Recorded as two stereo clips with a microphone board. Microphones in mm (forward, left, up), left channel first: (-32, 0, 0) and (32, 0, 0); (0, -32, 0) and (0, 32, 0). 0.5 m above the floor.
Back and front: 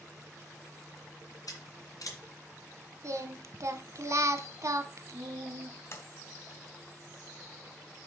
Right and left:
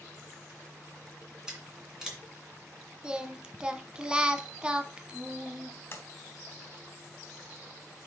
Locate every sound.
1.5 s scissors: 170° left, 2 m
3.0 s singing: 20° left, 0.6 m
5.9 s a sliding door: 140° right, 1.7 m